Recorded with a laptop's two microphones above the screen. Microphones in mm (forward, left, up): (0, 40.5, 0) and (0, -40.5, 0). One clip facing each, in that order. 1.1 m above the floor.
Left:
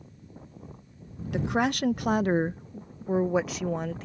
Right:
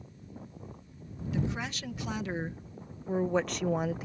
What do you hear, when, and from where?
1.3 s a woman speaking: 65° left (ahead or behind); by 4.0 s 15° right (ahead or behind)